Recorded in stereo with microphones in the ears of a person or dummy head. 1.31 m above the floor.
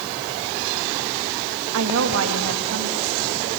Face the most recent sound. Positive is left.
turn(degrees=-70)  # may be behind; listen again after turning